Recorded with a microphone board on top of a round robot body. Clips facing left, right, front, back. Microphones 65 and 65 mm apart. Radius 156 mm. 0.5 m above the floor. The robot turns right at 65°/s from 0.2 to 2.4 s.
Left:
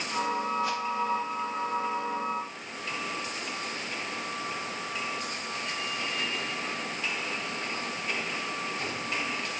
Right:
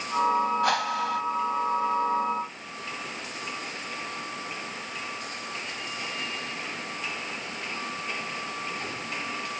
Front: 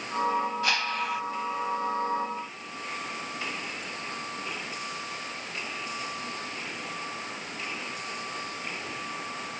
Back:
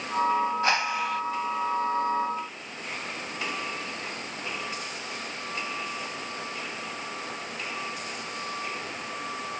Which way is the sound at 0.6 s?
120° right.